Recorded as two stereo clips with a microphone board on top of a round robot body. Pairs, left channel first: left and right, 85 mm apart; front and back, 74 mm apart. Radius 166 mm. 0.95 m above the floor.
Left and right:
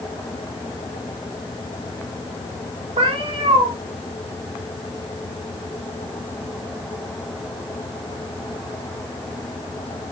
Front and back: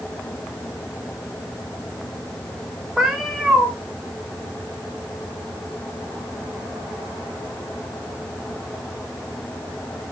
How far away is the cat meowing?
About 1.1 m.